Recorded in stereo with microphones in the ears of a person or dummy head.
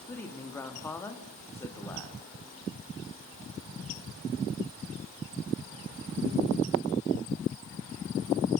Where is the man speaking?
10° left (ahead or behind), 2.5 m.